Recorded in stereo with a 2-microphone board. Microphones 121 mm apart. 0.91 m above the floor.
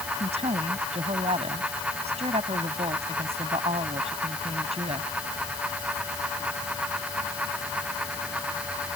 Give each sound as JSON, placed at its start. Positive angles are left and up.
{"t": 0.2, "sound": "a woman speaking", "side_deg": -60}